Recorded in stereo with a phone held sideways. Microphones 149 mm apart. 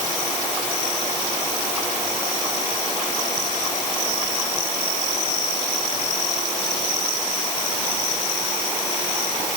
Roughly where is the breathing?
No breathing in this recording.